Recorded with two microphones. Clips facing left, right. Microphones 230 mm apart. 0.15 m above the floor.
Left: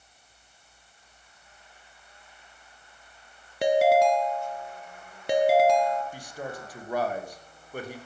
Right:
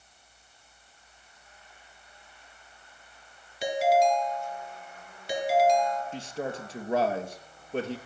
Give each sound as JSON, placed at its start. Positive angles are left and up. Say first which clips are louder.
{"t": 3.6, "sound": "a ringtone", "louder": "left 4 dB", "side_deg": 55, "distance_m": 1.7}
{"t": 6.1, "sound": "a man speaking", "louder": "right 4 dB", "side_deg": -25, "distance_m": 2.5}